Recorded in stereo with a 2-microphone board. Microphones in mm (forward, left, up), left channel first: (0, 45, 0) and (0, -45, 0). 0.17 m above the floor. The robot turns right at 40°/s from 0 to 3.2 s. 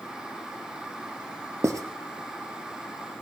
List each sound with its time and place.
1.6 s writing: 35° right (ahead or behind), 1.2 m; by 1.8 s 40° right (ahead or behind), 1.2 m